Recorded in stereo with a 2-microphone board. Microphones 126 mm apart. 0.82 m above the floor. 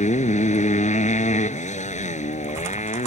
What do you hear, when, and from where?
0.0 s a motorcycle: 70° left (ahead or behind)